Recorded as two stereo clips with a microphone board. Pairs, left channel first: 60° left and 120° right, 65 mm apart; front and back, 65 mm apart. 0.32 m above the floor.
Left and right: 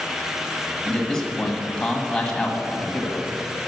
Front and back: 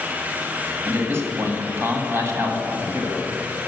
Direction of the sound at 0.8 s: 140° left.